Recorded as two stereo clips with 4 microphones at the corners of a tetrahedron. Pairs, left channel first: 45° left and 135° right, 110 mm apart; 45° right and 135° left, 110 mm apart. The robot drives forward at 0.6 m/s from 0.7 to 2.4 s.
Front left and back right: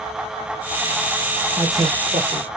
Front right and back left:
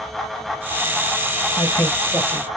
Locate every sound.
1.6 s a man speaking: 90° right, 1.4 m; by 2.5 s 120° right, 1.5 m